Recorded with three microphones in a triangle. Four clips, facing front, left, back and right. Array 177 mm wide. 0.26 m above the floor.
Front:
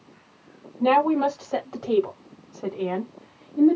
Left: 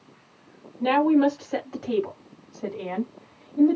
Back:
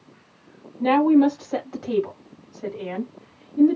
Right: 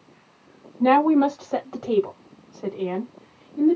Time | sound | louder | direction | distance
0.8 | a woman speaking | right 2 dB, back 3 dB | 90° right | 1.4 m